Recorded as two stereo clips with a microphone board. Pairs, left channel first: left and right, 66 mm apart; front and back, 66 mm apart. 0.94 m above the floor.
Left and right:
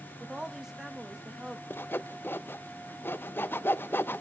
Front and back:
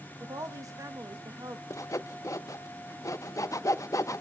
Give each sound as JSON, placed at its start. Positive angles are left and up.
{"t": 0.2, "sound": "a woman speaking", "azimuth_deg": -170, "distance_m": 1.3}
{"t": 1.7, "sound": "sawing", "azimuth_deg": 30, "distance_m": 0.5}